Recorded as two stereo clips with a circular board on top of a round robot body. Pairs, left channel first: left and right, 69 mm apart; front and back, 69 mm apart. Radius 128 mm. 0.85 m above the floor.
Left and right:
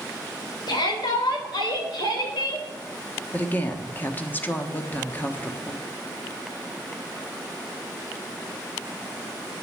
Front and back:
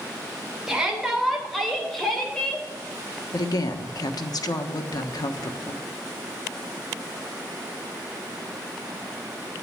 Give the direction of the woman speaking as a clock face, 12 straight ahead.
11 o'clock.